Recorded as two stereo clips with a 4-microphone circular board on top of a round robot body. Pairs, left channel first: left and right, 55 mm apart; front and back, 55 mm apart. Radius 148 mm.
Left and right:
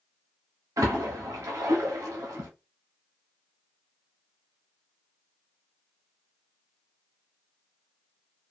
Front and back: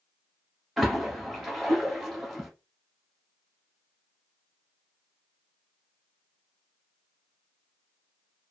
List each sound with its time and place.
0.8 s a splash: 90° right, 0.7 m